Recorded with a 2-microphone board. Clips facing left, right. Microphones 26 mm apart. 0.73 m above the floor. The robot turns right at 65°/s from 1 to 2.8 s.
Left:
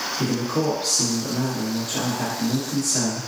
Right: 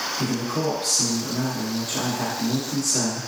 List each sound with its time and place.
0.2 s a man speaking: 25° left (ahead or behind), 1.0 m; by 3.3 s 15° right (ahead or behind), 1.0 m